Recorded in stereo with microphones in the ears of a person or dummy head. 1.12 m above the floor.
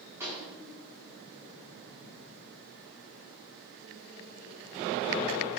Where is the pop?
15° right (ahead or behind), 2.5 m.